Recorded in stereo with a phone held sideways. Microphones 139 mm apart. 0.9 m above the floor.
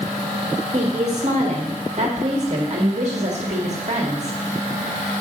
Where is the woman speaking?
50° right (ahead or behind), 1.7 m.